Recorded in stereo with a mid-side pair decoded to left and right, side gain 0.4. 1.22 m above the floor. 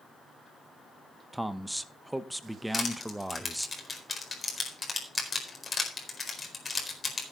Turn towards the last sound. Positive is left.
turn(degrees=30)